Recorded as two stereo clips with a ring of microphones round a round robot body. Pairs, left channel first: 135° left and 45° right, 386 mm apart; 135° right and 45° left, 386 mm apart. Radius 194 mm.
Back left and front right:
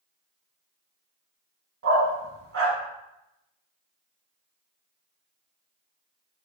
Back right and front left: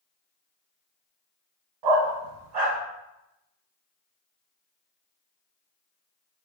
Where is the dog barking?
15° left, 1.3 m.